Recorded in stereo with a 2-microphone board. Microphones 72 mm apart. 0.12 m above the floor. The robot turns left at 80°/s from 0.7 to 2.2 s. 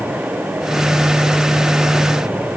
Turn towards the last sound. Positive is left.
No sound to turn to.